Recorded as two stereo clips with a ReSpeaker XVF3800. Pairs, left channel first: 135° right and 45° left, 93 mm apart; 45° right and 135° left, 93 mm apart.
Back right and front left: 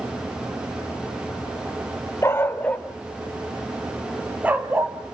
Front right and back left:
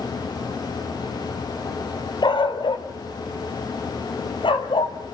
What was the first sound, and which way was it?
A dog barking, 75° right.